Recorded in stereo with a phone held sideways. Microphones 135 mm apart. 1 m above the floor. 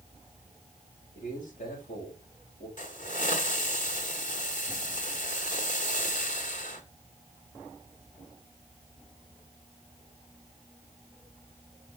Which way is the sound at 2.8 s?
75° left (ahead or behind).